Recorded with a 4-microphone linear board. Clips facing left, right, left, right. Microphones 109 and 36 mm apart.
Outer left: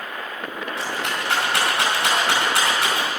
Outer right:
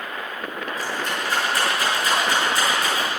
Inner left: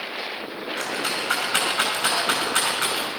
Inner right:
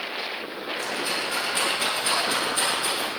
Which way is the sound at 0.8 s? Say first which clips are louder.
Outer left 1 dB, inner left 1 dB; 80° left.